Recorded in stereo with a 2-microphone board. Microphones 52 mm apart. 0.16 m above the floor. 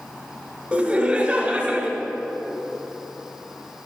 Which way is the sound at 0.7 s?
25° right (ahead or behind).